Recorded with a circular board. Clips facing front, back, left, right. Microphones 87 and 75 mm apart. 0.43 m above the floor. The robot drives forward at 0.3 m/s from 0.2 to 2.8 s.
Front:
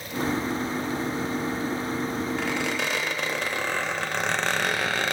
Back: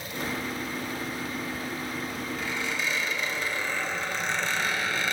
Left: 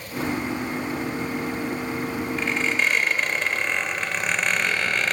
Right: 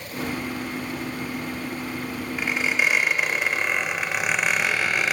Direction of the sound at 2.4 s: 10° right.